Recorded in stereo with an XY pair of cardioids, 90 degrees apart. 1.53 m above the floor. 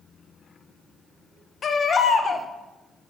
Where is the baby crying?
55° left, 1.0 m.